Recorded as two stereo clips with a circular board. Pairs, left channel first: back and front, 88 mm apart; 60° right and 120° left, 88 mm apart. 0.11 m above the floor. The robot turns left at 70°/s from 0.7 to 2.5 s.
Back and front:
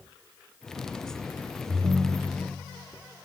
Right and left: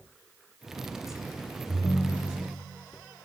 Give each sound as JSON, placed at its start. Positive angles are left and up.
{"t": 1.7, "sound": "a ringtone", "azimuth_deg": -5, "distance_m": 1.1}